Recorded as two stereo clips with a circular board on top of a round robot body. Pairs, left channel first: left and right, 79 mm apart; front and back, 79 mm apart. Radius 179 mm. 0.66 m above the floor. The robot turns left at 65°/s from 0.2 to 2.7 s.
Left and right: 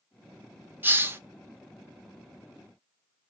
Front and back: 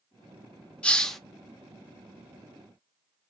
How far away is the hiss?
About 0.8 m.